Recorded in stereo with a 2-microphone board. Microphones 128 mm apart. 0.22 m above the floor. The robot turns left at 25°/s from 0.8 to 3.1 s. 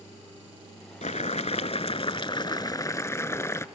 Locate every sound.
1.0 s boiling: 75° left, 0.8 m; by 3.6 s 25° left, 0.8 m